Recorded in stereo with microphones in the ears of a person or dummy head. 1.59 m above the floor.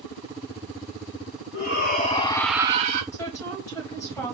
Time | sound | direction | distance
1.5 | a shout | 55° left (ahead or behind) | 1.2 m
3.1 | a woman speaking | 15° left (ahead or behind) | 1.6 m